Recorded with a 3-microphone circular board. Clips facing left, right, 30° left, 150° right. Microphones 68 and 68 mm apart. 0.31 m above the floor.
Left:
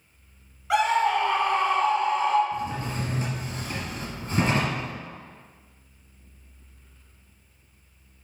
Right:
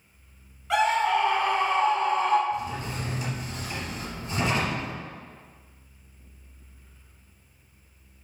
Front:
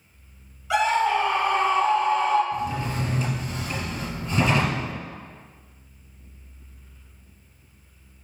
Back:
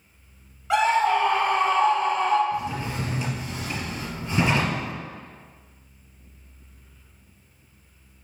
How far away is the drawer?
About 2.5 m.